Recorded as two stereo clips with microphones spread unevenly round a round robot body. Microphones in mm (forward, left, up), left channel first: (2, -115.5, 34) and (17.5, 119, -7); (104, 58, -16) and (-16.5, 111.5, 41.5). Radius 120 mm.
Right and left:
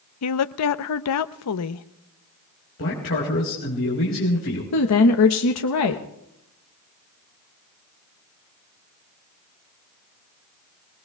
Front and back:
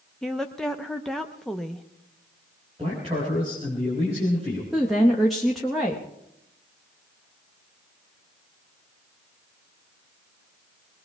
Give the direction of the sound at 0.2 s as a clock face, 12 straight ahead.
3 o'clock.